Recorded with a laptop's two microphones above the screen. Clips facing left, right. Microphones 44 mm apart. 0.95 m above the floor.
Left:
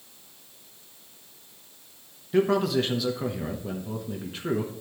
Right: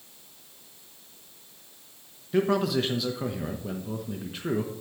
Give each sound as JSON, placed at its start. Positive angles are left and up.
{"t": 2.3, "sound": "a man speaking", "side_deg": 0, "distance_m": 1.0}